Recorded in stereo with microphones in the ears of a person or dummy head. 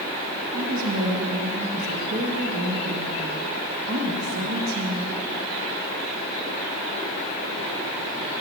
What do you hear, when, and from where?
0.5 s a woman speaking: 80° right, 1.0 m